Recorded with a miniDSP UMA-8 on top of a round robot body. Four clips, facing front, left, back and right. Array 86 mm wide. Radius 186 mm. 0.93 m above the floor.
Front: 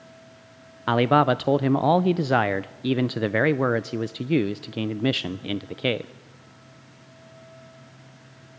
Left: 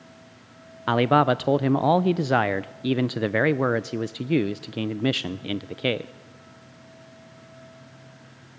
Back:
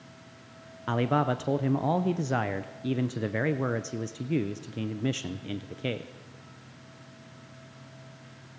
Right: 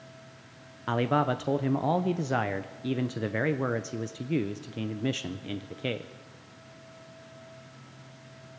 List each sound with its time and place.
0.9 s a man speaking: 45° left, 0.6 m